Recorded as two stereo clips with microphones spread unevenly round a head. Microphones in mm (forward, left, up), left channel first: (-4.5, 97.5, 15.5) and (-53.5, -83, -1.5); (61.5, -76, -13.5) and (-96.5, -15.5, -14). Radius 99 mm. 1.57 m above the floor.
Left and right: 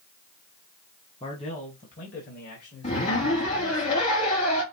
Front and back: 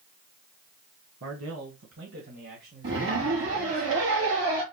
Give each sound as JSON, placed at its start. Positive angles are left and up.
{"t": 1.2, "sound": "a man speaking", "azimuth_deg": 140, "distance_m": 1.6}
{"t": 2.8, "sound": "a zipper", "azimuth_deg": 125, "distance_m": 4.0}